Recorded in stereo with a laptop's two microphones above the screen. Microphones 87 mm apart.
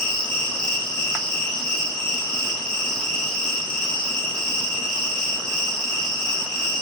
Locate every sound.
0.0 s an insect: 10° left (ahead or behind), 1.9 m